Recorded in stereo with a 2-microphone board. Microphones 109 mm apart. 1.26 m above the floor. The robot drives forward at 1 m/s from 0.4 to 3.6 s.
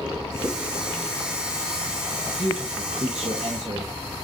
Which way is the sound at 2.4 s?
55° right (ahead or behind).